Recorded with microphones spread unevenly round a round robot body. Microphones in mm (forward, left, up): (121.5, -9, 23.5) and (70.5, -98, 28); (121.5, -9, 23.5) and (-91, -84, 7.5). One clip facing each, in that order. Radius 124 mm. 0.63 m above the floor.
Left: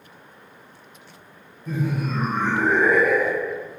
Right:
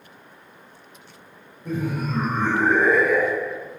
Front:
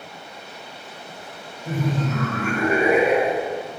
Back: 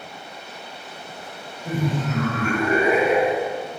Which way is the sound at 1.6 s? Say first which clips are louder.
Even, even; 90° right.